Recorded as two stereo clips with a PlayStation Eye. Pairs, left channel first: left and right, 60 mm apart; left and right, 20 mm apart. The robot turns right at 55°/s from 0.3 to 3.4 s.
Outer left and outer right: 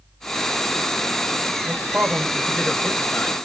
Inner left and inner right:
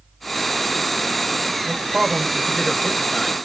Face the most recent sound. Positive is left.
turn(degrees=20)  # may be behind; listen again after turning